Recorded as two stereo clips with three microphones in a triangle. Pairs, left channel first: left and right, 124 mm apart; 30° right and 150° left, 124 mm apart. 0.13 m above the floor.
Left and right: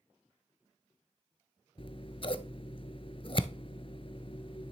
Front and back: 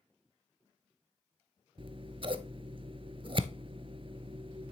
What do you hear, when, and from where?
1.8 s scissors: 120° left, 0.5 m